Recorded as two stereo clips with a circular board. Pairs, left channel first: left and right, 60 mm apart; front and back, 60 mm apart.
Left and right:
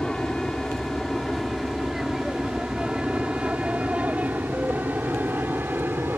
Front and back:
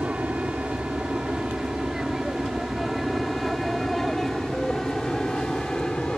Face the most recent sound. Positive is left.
turn(degrees=-70)